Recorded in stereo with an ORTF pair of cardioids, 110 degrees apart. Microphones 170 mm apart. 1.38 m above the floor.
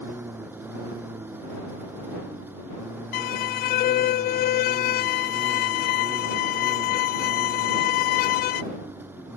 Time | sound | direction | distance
0.0 | a lawn mower | 10° right | ?
3.1 | a violin | 60° left | ?